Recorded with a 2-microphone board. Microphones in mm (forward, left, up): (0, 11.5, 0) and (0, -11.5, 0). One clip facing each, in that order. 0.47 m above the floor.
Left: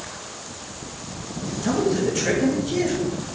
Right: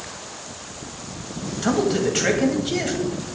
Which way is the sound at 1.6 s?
50° right (ahead or behind).